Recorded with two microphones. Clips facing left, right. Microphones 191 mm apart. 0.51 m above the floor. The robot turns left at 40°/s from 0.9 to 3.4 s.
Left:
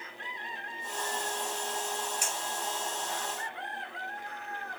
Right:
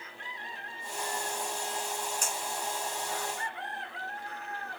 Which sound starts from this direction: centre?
A clink, at 2.2 s.